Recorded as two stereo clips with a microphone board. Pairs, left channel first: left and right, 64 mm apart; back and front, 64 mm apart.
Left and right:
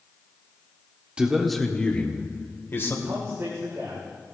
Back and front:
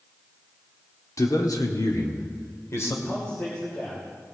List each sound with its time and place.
1.2 s a man speaking: 165° right, 1.3 m; by 3.0 s 140° left, 2.5 m
3.0 s a man speaking: 130° right, 3 m